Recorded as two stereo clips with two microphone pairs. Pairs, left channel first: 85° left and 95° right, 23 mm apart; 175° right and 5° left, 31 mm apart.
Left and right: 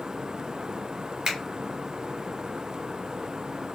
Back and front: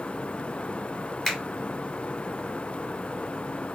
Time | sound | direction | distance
1.2 | a finger snap | 110° right | 1.0 m